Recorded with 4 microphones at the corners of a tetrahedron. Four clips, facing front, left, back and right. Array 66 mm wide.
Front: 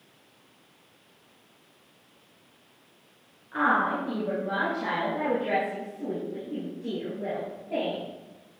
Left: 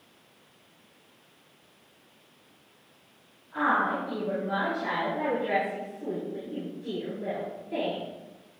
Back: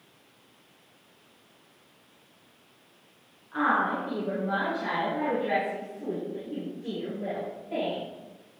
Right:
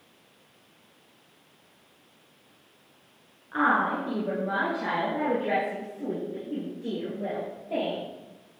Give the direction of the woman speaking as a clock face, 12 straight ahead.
2 o'clock.